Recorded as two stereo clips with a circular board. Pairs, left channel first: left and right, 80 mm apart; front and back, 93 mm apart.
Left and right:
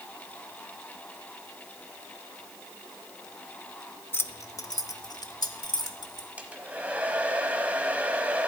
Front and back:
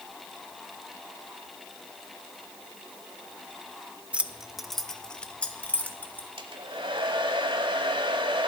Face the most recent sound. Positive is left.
turn(degrees=-160)